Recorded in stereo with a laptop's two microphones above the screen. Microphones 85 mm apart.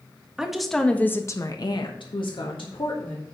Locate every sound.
0.4 s a woman speaking: 5° right (ahead or behind), 1.7 m; by 3.2 s 70° left (ahead or behind), 2.5 m